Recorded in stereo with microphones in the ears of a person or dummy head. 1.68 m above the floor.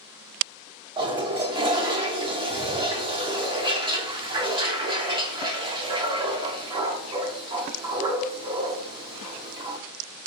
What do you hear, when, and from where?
1.0 s a toilet flushing: 15° right (ahead or behind), 0.7 m